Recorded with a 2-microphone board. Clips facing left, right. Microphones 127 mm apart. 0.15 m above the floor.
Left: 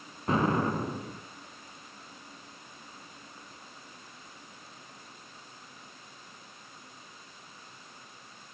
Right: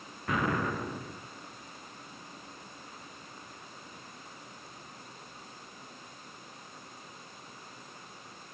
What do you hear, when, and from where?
0.3 s an explosion: 30° left (ahead or behind), 0.8 m